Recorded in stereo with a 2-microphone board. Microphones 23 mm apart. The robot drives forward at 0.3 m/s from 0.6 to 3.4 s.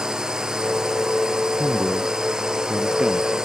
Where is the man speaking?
45° right (ahead or behind); by 3.3 s 40° right (ahead or behind).